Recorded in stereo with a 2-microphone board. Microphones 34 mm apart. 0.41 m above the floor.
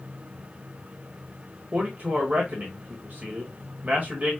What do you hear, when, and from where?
1.7 s a man speaking: 55° right (ahead or behind), 1.5 m